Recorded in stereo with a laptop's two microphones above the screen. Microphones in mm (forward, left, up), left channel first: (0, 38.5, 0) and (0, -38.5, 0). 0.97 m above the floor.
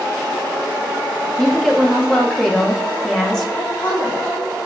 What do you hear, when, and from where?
1.4 s a woman speaking: 10° left (ahead or behind), 0.9 m
3.6 s a woman speaking: 65° left (ahead or behind), 1.9 m